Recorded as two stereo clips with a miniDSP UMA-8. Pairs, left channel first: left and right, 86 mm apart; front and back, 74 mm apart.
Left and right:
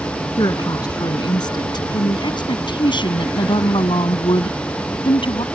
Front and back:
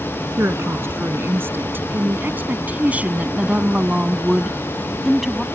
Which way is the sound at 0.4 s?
125° left.